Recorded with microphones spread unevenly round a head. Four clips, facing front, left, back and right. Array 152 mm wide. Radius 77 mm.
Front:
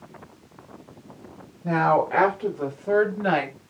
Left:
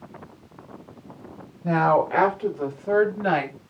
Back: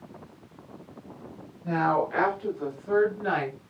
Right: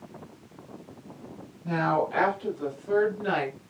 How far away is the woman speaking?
About 5.5 m.